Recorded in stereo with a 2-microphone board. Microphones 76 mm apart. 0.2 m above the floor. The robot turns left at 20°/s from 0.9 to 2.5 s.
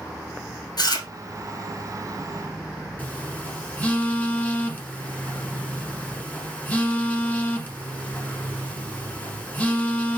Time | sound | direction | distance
0.8 | chewing | 65° left (ahead or behind) | 1.5 m
3.0 | a phone buzzing | 25° left (ahead or behind) | 0.9 m